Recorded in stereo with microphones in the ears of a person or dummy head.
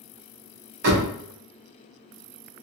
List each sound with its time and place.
0.8 s a door slam: 55° right (ahead or behind), 0.8 m